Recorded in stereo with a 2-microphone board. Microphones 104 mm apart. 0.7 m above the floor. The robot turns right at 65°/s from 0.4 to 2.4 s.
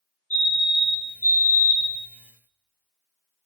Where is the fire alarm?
160° left, 3.5 m; by 2.0 s 95° right, 3.5 m.